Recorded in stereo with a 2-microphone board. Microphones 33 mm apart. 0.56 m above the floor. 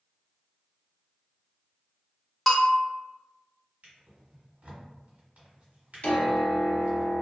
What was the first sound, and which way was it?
A bell, 5° left (ahead or behind).